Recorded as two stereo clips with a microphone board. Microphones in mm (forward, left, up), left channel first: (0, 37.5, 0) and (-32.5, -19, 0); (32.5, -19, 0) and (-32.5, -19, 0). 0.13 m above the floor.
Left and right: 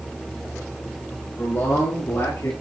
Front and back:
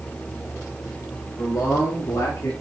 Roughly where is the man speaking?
Ahead left.